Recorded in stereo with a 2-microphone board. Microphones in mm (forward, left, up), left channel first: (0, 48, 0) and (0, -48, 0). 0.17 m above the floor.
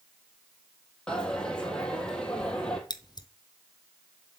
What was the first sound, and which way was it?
A dropped coin, 10° left (ahead or behind).